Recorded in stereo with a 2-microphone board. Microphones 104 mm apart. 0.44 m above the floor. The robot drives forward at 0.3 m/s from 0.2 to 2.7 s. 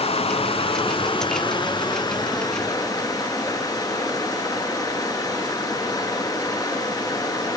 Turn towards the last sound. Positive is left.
turn(degrees=35)  # may be behind; listen again after turning